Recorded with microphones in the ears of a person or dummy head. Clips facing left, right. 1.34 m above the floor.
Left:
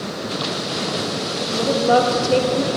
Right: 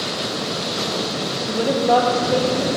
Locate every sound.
1.5 s a woman speaking: 25° right (ahead or behind), 0.6 m; by 2.7 s 50° left (ahead or behind), 0.8 m